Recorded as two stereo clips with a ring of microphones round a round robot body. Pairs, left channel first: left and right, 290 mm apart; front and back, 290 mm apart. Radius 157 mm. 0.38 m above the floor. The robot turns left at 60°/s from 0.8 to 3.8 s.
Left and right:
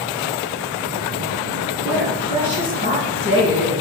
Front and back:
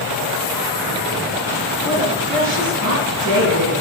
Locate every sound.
1.9 s a woman speaking: 100° right, 4 m; by 3.7 s 150° left, 4 m